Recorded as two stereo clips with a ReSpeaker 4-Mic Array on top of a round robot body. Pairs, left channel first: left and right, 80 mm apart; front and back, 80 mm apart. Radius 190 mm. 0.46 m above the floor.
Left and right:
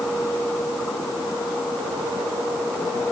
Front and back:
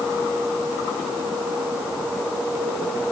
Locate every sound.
Only background noise.